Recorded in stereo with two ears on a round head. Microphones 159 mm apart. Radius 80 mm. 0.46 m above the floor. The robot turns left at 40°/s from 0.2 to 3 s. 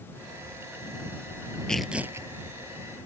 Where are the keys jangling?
No keys jangling in this recording.